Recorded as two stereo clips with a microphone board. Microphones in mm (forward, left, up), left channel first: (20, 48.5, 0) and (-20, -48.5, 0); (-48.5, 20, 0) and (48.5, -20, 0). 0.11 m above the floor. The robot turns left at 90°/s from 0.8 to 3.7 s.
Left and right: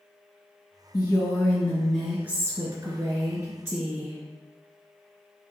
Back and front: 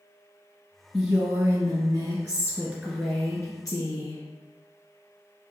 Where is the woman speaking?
55° left, 1.5 m; by 4.2 s 170° left, 1.5 m.